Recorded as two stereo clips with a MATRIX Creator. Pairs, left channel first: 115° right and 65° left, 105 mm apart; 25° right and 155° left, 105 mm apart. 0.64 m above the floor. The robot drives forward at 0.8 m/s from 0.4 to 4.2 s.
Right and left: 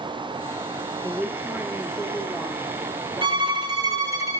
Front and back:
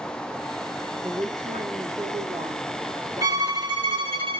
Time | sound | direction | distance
1.0 | a woman speaking | 125° left | 0.8 m
3.2 | a violin | 105° left | 1.8 m